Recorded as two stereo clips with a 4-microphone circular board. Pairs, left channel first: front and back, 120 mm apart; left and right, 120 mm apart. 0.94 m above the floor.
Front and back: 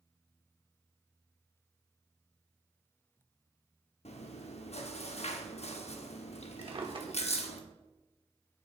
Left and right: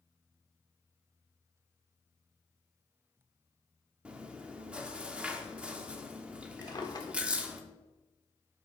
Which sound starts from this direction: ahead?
Chewing, at 4.0 s.